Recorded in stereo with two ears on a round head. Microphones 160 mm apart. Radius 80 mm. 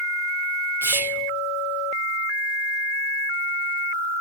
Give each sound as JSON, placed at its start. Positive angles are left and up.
{"t": 0.8, "sound": "whispering", "side_deg": -10, "distance_m": 0.9}